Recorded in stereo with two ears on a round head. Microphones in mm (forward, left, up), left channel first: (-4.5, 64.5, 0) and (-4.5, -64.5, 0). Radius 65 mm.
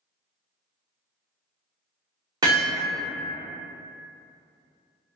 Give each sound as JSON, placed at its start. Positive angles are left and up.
{"t": 2.4, "sound": "hammering", "side_deg": -25, "distance_m": 0.7}